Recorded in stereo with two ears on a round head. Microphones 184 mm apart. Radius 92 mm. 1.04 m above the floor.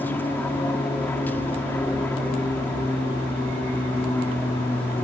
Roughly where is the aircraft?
Centre.